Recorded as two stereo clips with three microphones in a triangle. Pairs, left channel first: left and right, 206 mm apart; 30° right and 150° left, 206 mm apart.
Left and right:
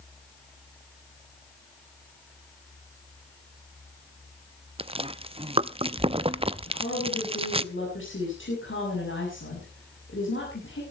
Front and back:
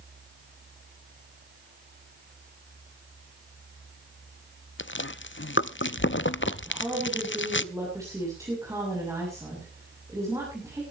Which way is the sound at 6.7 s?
75° left.